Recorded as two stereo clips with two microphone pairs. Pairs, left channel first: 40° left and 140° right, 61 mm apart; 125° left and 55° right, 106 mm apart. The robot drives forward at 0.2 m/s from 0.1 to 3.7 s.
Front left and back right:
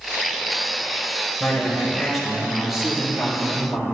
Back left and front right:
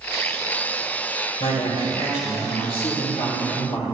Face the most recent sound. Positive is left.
turn(degrees=135)